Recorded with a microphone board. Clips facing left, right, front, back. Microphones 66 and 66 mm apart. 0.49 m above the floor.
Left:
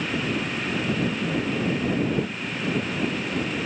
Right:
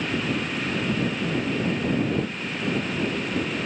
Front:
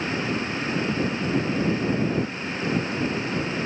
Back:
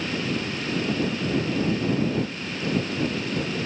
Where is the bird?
No bird in this recording.